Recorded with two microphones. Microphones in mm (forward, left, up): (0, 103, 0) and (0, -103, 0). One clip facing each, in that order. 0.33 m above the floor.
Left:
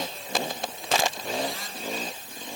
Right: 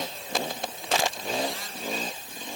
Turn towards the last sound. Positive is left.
No sound to turn to.